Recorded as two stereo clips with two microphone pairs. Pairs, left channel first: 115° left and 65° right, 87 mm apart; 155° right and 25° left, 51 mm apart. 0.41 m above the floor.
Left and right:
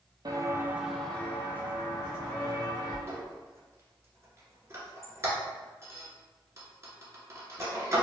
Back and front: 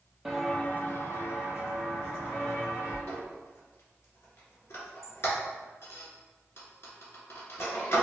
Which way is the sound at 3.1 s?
120° right.